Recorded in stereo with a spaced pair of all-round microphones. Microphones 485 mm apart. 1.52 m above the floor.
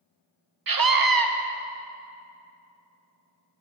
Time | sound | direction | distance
0.7 | a scream | 45° right (ahead or behind) | 0.5 m